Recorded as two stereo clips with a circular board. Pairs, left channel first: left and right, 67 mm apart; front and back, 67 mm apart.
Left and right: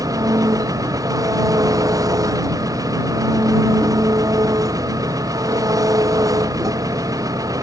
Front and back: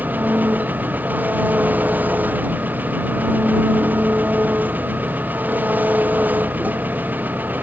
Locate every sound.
0.0 s an engine running: 120° right